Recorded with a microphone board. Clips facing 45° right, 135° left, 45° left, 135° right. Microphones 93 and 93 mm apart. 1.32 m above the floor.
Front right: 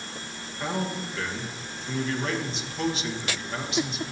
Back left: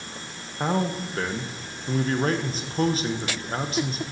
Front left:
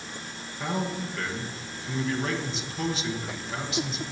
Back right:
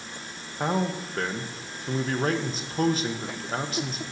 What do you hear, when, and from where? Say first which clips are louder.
0.6 s a man speaking: back left 5 dB, back right 3 dB; straight behind, 1.0 m